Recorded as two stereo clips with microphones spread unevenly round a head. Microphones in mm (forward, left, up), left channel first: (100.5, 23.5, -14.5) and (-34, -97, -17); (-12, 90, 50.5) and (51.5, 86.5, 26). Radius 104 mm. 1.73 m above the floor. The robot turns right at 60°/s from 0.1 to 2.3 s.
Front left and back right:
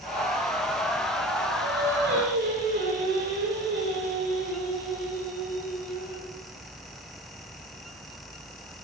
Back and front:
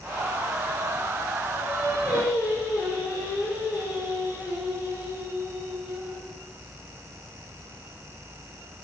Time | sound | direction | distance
1.6 | singing | 160° right | 6 m